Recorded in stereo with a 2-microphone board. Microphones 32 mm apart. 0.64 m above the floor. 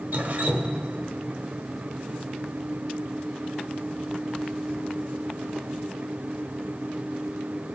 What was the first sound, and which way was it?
Dripping, 60° right (ahead or behind).